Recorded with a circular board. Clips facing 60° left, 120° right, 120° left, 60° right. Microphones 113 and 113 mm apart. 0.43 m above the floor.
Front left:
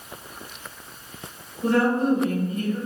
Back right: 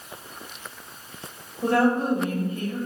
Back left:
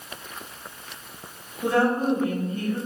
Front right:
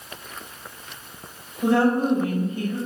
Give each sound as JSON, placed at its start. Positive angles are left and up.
{"t": 1.6, "sound": "a woman speaking", "azimuth_deg": -125, "distance_m": 1.6}